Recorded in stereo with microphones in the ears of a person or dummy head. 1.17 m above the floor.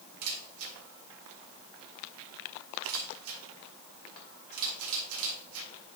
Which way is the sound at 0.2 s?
80° right.